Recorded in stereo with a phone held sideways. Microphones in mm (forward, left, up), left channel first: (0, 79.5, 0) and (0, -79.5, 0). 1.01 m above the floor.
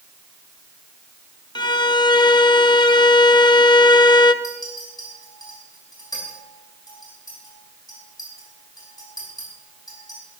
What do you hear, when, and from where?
1.6 s a violin: 30° left (ahead or behind), 0.7 m
4.4 s a clink: 25° left (ahead or behind), 6 m